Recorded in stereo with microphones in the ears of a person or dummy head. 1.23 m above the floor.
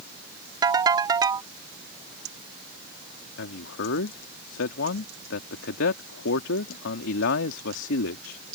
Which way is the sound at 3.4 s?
70° left (ahead or behind).